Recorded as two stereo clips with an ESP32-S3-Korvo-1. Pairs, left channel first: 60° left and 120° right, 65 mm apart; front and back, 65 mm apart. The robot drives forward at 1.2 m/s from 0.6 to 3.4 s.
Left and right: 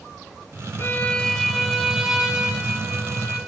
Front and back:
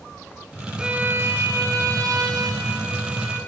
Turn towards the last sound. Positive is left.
turn(degrees=170)